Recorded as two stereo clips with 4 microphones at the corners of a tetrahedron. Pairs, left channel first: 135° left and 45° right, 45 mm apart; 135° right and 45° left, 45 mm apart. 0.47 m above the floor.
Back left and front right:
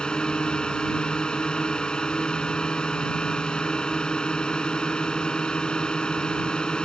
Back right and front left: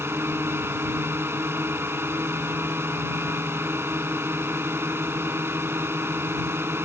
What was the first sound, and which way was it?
A drone, 65° left.